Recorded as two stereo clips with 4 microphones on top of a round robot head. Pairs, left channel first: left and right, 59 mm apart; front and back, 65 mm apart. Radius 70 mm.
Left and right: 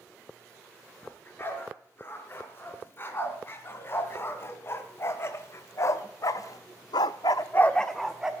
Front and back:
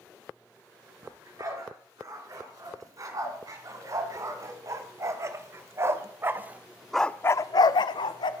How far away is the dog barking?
About 5.5 m.